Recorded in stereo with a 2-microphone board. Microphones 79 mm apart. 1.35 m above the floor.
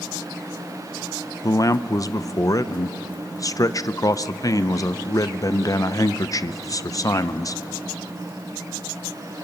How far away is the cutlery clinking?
I don't hear cutlery clinking.